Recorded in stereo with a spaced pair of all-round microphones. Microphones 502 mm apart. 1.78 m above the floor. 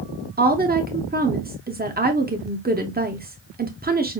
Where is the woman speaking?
20° right (ahead or behind), 0.6 m.